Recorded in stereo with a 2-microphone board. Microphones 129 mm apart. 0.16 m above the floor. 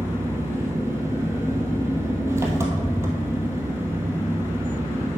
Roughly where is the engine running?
Right.